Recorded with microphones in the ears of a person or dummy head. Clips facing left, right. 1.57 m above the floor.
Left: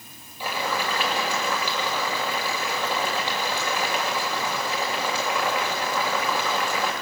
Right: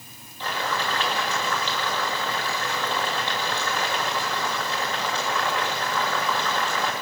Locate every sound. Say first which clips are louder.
0.4 s boiling: left 1 dB; 10° left (ahead or behind), 8 m